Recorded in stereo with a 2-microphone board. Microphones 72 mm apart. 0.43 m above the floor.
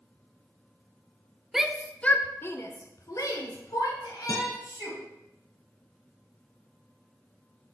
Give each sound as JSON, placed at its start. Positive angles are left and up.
{"t": 1.5, "sound": "a shout", "side_deg": -5, "distance_m": 0.8}
{"t": 4.3, "sound": "a guitar", "side_deg": 80, "distance_m": 5.5}